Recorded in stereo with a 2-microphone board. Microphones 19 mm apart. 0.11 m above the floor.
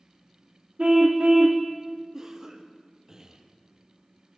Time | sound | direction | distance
0.8 | a car horn | 45° right (ahead or behind) | 3 m
2.1 | a cough | 35° right (ahead or behind) | 3 m